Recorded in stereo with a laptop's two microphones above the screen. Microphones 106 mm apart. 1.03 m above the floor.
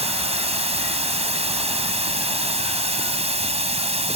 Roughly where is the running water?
Right.